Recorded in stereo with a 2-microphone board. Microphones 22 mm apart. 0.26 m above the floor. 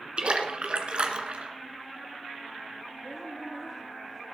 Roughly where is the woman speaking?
Centre.